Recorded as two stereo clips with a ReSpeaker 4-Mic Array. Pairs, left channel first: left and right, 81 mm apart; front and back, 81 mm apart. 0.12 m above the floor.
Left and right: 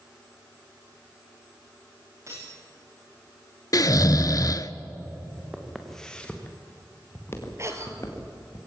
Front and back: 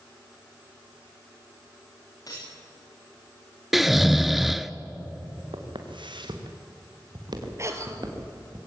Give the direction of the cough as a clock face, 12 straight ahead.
4 o'clock.